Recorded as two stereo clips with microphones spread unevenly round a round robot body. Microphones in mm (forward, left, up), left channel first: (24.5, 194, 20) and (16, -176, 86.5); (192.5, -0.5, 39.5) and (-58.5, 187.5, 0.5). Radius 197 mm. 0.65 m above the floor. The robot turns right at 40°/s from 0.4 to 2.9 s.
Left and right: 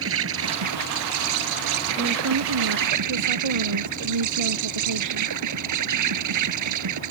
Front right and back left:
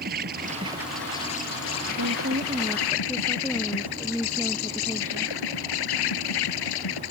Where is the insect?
150° right; by 7.1 s 50° right.